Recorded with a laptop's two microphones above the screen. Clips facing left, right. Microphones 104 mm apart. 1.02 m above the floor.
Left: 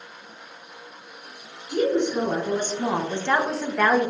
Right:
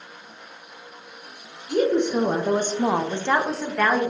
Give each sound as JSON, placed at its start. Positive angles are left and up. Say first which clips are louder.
{"t": 1.7, "sound": "a woman speaking", "louder": "right 2 dB", "side_deg": -65, "distance_m": 0.8}